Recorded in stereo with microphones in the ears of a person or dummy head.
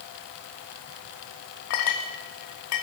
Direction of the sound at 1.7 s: 50° left (ahead or behind).